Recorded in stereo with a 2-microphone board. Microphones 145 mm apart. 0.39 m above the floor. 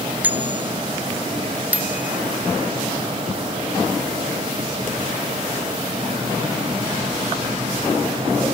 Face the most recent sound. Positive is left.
turn(degrees=-10)  # may be behind; listen again after turning